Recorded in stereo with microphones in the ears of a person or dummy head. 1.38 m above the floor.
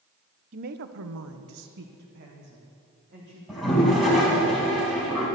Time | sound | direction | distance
0.5 | a woman speaking | 40° right (ahead or behind) | 0.8 m
3.5 | a toilet flushing | centre (ahead or behind) | 2.5 m